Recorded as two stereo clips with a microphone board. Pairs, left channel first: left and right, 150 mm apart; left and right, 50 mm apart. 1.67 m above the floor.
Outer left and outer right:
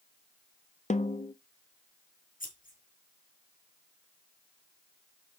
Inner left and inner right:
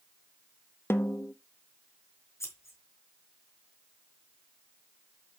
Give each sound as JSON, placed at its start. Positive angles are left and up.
{"t": 0.9, "sound": "a snare drum", "side_deg": 55, "distance_m": 0.8}
{"t": 2.4, "sound": "scissors", "side_deg": 70, "distance_m": 3.5}